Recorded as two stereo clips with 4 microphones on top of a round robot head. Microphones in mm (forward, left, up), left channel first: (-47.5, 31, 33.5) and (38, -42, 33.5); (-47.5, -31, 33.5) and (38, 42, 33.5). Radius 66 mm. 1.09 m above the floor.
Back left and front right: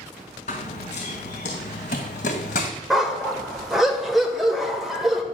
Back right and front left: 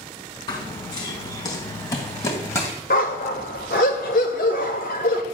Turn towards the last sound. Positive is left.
turn(degrees=-130)